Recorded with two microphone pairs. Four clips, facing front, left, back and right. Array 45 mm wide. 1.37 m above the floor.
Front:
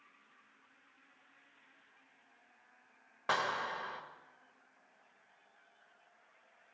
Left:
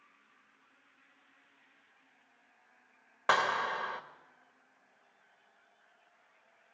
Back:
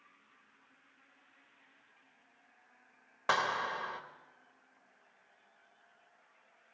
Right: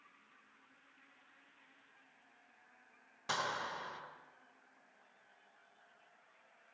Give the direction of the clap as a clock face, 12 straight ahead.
9 o'clock.